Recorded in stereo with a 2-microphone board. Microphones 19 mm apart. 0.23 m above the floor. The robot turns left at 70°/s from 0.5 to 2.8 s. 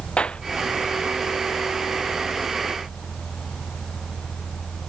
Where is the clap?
75° left (ahead or behind).